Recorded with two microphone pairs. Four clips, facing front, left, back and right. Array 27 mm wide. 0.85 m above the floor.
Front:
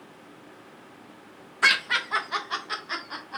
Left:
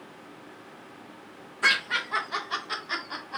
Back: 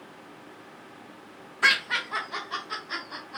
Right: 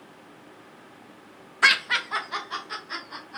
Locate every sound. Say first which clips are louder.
1.6 s laughter: right 4 dB, front 1 dB; 75° right, 0.7 m; by 3.4 s 55° left, 0.9 m